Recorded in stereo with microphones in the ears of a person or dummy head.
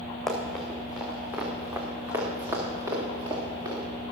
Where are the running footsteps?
5° left (ahead or behind), 3 m; by 3.8 s 25° right (ahead or behind), 5.5 m.